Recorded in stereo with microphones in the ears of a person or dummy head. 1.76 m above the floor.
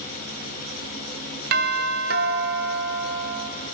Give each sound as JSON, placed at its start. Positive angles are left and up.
{"t": 1.5, "sound": "a doorbell", "side_deg": -55, "distance_m": 1.5}